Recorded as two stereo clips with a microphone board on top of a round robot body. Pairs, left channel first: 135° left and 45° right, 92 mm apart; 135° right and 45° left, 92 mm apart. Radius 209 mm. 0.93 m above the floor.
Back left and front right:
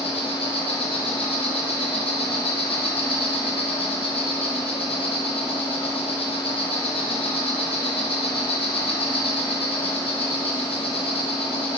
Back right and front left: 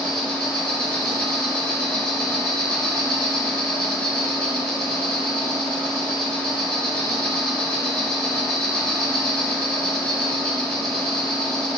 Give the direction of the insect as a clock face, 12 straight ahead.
7 o'clock.